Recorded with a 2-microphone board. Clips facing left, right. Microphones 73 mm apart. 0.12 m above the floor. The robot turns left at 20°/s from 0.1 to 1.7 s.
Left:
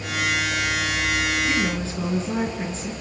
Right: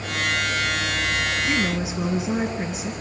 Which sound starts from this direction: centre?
A woman speaking, at 1.5 s.